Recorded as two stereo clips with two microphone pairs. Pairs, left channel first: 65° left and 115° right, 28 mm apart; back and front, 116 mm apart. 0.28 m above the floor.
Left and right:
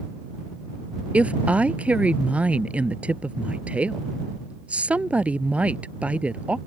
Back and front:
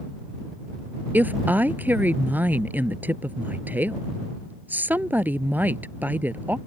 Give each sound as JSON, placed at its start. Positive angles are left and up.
{"t": 1.1, "sound": "a woman speaking", "azimuth_deg": -75}